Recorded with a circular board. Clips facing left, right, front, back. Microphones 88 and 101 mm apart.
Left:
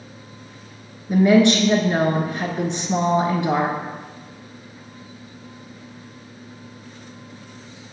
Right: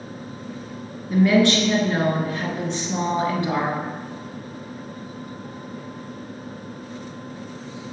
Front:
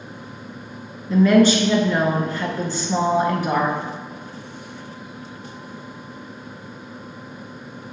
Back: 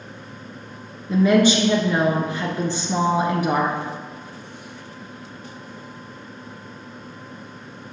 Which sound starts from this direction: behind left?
A woman speaking, at 1.1 s.